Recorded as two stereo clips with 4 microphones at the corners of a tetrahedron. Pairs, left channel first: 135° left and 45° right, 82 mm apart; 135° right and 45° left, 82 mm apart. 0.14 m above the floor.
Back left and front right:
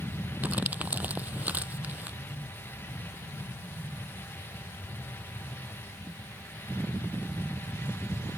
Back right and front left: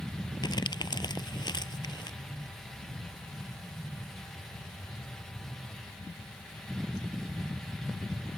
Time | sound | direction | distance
0.4 | crumpling | 115° right | ?